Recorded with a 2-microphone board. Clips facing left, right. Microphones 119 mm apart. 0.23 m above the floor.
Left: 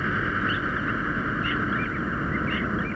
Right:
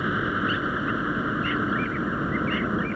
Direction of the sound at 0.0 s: 15° right (ahead or behind).